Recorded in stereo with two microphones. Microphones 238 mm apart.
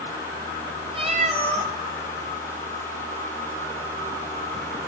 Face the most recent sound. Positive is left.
turn(degrees=-25)  # may be behind; listen again after turning